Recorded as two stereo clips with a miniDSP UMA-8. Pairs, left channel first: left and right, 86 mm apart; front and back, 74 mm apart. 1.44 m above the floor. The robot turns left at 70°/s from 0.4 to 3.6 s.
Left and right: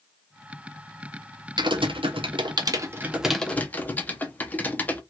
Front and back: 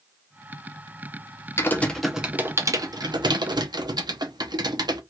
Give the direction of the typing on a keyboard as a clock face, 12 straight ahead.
2 o'clock.